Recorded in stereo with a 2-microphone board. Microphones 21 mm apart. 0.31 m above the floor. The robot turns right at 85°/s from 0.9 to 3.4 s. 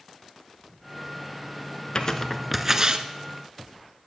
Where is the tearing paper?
40° left (ahead or behind), 1.1 m; by 3.1 s 55° right (ahead or behind), 1.1 m.